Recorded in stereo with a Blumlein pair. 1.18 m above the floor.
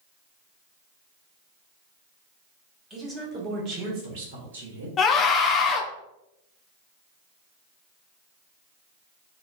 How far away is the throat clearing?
No throat clearing in this recording.